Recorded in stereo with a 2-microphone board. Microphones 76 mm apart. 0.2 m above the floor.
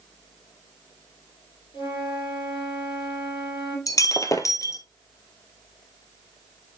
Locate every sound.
1.7 s a flute: 75° left (ahead or behind), 4.5 m
3.9 s breaking glass: 45° left (ahead or behind), 0.7 m